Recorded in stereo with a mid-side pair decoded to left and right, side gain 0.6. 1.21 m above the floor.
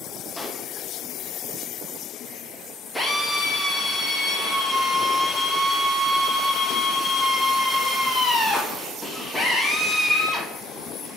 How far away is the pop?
About 0.9 m.